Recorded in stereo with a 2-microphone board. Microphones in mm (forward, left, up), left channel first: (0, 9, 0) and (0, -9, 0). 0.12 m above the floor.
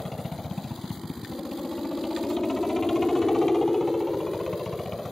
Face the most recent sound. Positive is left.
turn(degrees=25)  # may be behind; listen again after turning